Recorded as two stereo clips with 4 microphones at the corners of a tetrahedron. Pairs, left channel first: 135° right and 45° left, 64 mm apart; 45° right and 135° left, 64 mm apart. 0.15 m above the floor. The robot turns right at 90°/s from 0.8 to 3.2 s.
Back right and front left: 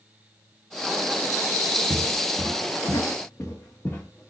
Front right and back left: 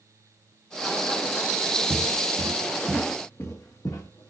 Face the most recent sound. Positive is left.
turn(degrees=-70)